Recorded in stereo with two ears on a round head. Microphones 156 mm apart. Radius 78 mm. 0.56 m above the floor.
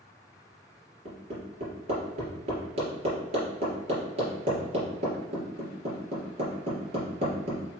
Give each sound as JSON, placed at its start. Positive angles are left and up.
{"t": 1.1, "sound": "hammering", "side_deg": -35, "distance_m": 3.0}